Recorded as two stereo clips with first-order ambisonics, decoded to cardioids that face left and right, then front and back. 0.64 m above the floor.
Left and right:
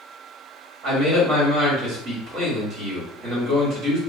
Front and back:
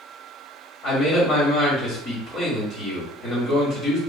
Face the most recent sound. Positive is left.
turn(degrees=-50)